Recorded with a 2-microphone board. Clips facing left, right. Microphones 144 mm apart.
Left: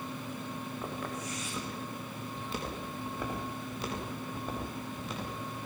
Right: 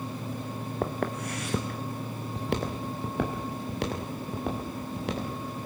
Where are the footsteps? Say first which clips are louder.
Right 11 dB; 60° right (ahead or behind), 2.5 m; by 5.6 s 75° right (ahead or behind), 8 m.